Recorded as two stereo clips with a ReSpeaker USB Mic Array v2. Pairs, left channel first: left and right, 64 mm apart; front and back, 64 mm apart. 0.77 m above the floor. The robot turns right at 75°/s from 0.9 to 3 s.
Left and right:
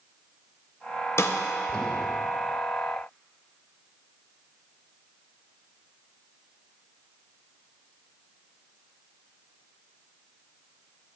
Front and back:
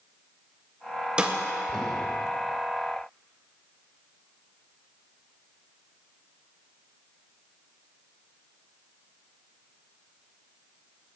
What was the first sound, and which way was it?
A snare drum, 110° left.